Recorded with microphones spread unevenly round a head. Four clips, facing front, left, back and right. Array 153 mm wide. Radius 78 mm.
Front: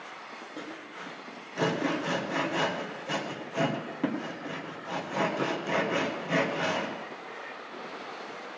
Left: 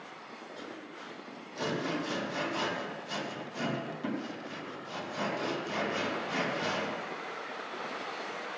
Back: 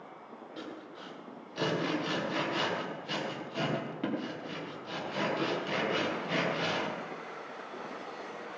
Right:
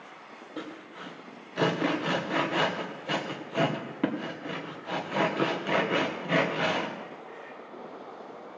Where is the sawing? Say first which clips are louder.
Right 7 dB, front 2 dB; 70° right, 1.6 m.